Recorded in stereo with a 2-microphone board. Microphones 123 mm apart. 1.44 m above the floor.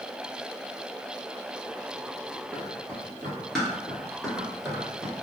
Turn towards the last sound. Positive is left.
turn(degrees=-10)  # may be behind; listen again after turning